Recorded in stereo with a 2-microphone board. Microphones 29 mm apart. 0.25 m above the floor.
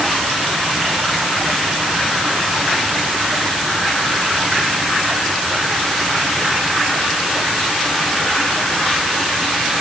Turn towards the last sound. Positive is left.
No sound to turn to.